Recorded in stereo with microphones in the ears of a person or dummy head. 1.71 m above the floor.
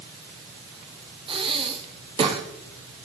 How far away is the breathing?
About 1.5 m.